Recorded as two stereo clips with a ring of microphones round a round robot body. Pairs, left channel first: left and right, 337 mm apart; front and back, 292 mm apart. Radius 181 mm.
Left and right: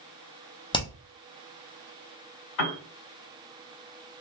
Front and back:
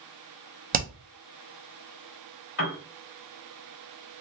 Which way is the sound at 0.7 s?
155° left.